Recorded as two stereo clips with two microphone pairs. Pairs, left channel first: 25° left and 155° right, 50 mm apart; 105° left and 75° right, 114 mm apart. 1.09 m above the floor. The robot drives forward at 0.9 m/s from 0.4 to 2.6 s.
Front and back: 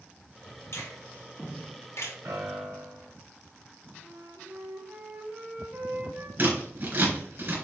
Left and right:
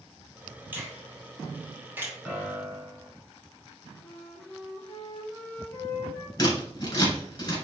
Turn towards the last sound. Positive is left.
turn(degrees=160)